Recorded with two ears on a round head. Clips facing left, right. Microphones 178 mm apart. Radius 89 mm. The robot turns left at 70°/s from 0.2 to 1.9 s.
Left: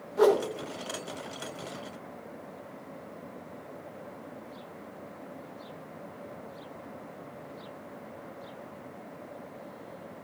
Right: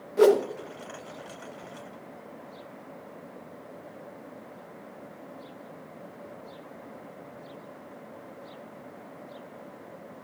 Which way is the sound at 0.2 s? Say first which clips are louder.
Right 3 dB; 35° right (ahead or behind).